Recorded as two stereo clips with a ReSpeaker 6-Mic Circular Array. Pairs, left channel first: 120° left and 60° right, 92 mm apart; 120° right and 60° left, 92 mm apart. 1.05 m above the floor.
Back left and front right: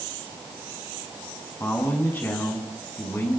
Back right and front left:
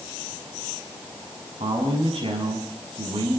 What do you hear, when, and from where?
1.6 s a man speaking: 55° left, 8 m